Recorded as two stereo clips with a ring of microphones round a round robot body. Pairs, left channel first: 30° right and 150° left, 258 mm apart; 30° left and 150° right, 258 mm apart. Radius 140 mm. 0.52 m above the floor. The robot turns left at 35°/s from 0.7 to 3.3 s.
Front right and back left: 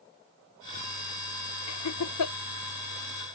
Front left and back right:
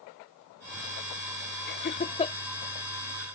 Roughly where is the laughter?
Ahead.